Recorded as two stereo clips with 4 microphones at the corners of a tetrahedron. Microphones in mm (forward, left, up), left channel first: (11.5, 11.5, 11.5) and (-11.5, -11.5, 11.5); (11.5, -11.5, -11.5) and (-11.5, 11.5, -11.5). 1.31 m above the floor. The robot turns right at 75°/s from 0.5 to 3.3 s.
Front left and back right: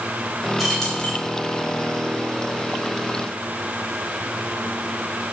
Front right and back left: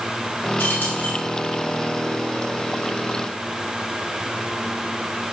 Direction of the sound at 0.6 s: 50° right.